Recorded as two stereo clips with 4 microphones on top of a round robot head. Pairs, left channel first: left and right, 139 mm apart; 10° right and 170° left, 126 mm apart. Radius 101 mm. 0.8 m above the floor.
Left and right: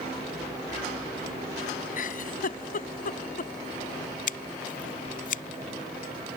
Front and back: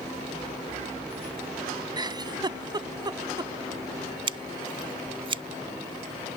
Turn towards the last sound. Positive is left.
turn(degrees=115)